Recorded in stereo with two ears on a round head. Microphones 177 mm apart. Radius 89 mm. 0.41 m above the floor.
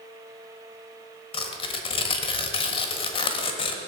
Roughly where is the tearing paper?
Left.